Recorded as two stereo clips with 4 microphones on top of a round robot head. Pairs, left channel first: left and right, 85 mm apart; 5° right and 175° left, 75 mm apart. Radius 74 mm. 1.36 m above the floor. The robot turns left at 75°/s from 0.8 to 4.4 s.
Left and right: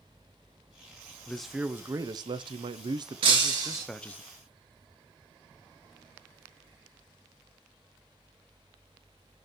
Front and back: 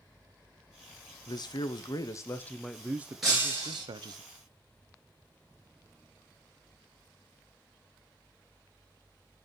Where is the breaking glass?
100° right, 2.5 m; by 3.9 s 145° right, 2.5 m.